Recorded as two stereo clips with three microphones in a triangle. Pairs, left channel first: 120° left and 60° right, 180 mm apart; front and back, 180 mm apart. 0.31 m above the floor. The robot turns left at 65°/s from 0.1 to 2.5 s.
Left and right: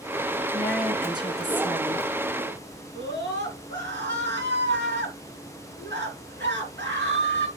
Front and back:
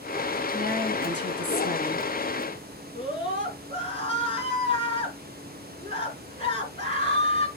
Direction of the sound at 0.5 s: 45° left.